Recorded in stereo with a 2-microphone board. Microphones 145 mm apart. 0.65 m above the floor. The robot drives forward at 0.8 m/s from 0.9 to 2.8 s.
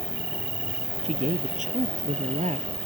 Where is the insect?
75° right (ahead or behind); by 2.9 s 40° right (ahead or behind).